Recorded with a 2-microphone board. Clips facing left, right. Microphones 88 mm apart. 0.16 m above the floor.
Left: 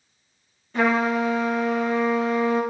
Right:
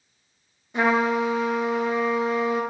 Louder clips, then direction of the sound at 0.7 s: Even; 15° right (ahead or behind).